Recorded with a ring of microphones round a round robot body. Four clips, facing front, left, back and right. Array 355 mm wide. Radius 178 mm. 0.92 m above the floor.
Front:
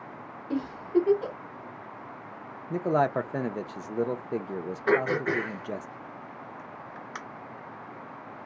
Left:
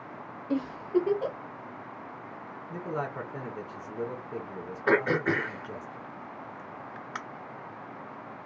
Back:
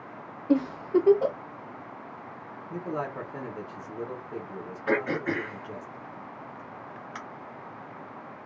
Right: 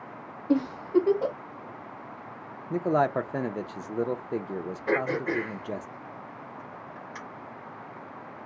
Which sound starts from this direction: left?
Throat clearing, at 4.9 s.